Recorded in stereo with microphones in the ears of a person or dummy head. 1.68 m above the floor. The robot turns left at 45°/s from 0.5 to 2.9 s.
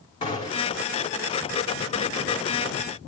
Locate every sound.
0.2 s a gunshot: 25° left (ahead or behind), 3 m; by 0.8 s 40° left (ahead or behind), 3 m